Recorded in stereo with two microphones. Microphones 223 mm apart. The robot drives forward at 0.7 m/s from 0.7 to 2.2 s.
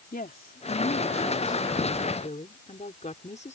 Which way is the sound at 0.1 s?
40° left (ahead or behind).